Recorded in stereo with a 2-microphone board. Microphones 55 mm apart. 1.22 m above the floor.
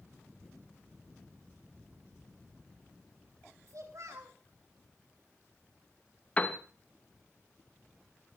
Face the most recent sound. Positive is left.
turn(degrees=25)  # may be behind; listen again after turning